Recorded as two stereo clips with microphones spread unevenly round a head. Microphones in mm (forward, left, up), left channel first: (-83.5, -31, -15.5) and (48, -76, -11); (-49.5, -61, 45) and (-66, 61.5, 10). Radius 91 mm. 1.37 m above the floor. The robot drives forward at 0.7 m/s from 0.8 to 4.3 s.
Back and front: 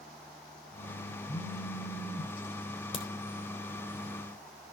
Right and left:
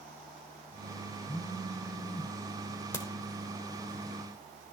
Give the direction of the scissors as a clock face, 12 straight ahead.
I don't hear scissors.